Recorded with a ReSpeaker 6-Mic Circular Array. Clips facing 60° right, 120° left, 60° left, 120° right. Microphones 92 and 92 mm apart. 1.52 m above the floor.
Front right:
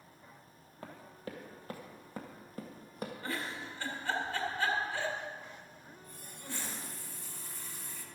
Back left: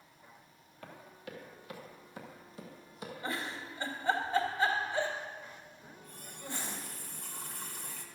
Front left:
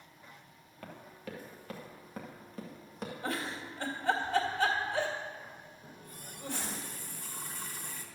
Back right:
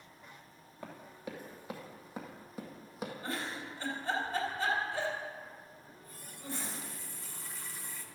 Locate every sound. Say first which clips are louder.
0.8 s running footsteps: front right 2 dB, back right 1 dB; 60° right, 1.7 m; by 3.1 s 35° right, 2.5 m
3.2 s a giggle: back left 3 dB, front left 4 dB; 50° left, 2 m
5.8 s a running tap: back left 1 dB, front left 3 dB; 95° left, 1.3 m